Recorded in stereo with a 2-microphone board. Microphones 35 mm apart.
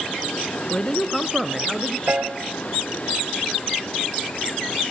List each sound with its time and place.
0.7 s a man speaking: 25° left (ahead or behind), 1.2 m; by 2.0 s 10° right (ahead or behind), 1.9 m
2.1 s a piano: 50° right (ahead or behind), 1.6 m